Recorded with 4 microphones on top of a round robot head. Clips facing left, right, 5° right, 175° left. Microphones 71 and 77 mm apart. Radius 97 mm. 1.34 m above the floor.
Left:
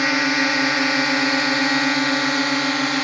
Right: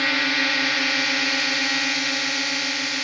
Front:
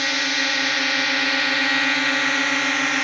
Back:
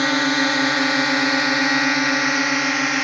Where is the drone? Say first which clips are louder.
Left 4 dB, back 6 dB; 150° left; by 3.0 s 95° left.